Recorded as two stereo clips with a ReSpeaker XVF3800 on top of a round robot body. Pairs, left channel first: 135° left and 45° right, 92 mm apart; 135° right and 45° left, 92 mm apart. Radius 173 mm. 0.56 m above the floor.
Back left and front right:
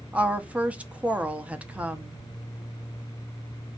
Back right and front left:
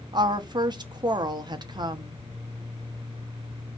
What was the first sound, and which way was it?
A woman speaking, 25° left.